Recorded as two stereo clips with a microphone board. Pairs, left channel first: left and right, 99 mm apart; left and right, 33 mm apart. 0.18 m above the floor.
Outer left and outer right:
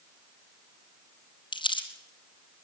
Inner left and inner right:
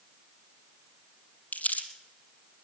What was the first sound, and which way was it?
Crumpling, 60° left (ahead or behind).